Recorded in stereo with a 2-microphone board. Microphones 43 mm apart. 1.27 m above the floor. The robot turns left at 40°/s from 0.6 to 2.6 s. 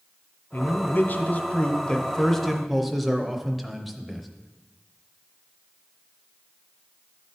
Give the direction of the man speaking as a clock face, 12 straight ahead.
9 o'clock.